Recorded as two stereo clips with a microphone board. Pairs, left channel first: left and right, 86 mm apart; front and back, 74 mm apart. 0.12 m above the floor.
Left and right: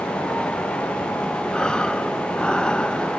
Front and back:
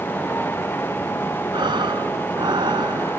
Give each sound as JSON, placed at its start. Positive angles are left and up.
{"t": 1.5, "sound": "breathing", "azimuth_deg": 170}